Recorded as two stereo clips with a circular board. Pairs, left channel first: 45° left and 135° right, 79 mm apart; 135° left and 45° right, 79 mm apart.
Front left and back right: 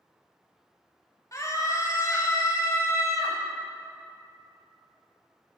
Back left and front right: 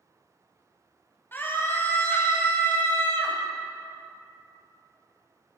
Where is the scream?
80° left, 1.5 m.